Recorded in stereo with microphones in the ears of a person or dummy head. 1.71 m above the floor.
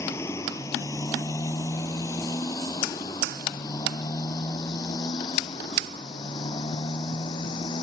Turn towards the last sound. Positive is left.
turn(degrees=25)  # may be behind; listen again after turning